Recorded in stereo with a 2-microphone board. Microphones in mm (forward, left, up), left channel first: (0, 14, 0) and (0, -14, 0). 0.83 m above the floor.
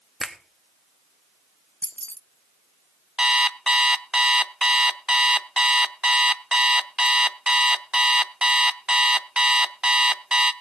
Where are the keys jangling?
50° left (ahead or behind), 0.6 m.